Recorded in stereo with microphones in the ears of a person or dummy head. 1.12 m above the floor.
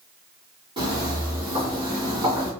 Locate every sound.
0.8 s footsteps: 30° right (ahead or behind), 1.9 m; by 2.5 s 25° right (ahead or behind), 3.5 m